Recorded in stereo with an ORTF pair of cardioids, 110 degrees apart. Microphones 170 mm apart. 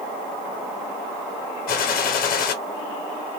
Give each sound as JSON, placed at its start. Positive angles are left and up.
{"t": 1.7, "sound": "a gunshot", "azimuth_deg": 60, "distance_m": 0.9}